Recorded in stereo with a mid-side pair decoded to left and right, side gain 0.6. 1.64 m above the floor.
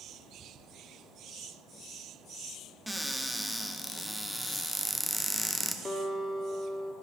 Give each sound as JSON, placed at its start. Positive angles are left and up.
{"t": 2.9, "sound": "a cupboard door", "azimuth_deg": 0, "distance_m": 0.7}
{"t": 5.8, "sound": "a guitar", "azimuth_deg": 25, "distance_m": 1.2}